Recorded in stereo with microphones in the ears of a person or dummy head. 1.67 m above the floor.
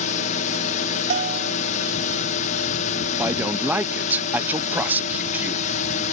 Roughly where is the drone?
Left.